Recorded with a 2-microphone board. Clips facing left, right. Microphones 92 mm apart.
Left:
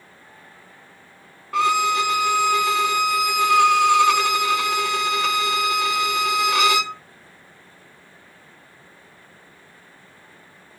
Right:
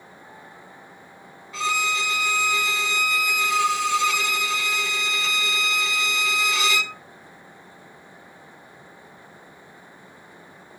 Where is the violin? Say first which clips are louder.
Left 7 dB; 60° left (ahead or behind), 0.6 m.